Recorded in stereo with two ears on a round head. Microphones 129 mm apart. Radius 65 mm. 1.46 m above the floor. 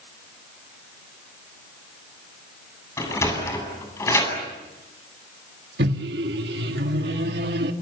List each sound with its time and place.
3.0 s a sliding door: 20° left (ahead or behind), 8.5 m
5.8 s a microwave: 80° right, 2.5 m